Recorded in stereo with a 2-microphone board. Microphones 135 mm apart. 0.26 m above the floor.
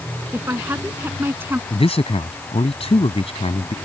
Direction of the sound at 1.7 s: 50° left (ahead or behind).